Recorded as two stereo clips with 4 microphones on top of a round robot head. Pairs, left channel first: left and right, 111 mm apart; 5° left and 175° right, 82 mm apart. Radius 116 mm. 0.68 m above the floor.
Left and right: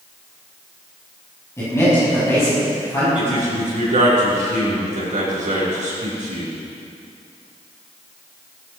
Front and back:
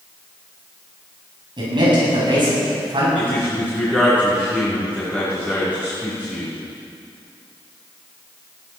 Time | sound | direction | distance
1.6 | a man speaking | 160° left | 6.5 m
3.1 | a man speaking | 95° right | 5.5 m